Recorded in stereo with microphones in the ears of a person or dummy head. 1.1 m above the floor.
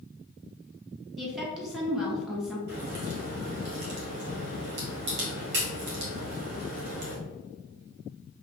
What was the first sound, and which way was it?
A woman speaking, centre (ahead or behind).